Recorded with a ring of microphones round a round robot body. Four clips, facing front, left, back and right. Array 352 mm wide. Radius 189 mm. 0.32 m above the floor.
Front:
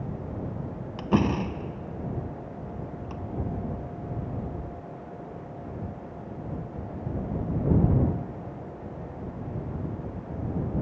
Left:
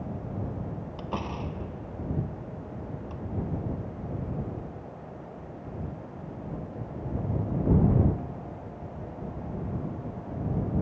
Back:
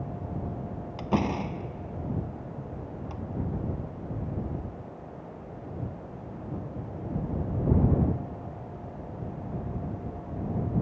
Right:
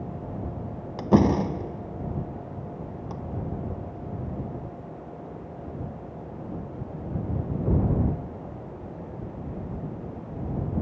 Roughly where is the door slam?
Right.